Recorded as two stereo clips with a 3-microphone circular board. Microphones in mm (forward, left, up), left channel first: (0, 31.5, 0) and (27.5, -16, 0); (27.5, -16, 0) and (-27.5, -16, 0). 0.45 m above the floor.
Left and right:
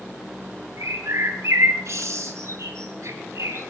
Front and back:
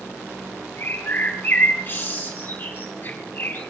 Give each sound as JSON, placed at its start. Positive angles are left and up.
{"t": 0.8, "sound": "a bird", "azimuth_deg": -50, "distance_m": 3.5}